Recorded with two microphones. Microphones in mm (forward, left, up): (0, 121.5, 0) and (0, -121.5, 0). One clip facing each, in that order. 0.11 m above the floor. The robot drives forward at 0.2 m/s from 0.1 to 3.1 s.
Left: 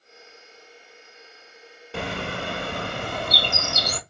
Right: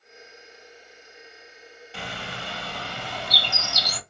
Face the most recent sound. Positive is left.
turn(degrees=55)  # may be behind; listen again after turning